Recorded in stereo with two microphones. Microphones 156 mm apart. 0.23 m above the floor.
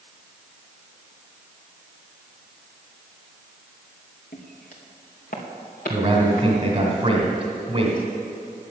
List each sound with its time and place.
4.3 s footsteps: 65° left (ahead or behind), 3 m; by 6.9 s 60° left (ahead or behind), 4.5 m
5.9 s a man speaking: 35° right (ahead or behind), 1.8 m